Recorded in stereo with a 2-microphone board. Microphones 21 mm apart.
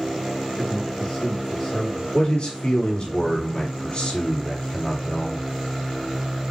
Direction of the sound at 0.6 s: 40° left (ahead or behind).